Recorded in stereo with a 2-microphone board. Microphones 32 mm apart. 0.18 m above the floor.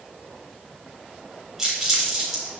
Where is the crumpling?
10° right (ahead or behind), 3 m.